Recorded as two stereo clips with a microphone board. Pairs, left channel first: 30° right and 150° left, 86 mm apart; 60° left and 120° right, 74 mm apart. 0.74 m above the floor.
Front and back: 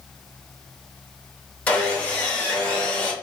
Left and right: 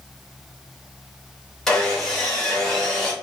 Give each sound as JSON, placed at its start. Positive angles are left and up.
{"t": 1.7, "sound": "sawing", "azimuth_deg": 0, "distance_m": 0.9}